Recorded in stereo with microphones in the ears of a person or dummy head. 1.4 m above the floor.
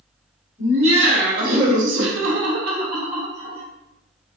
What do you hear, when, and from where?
0.6 s laughter: 40° right (ahead or behind), 1.1 m; by 3.6 s 20° right (ahead or behind), 1.0 m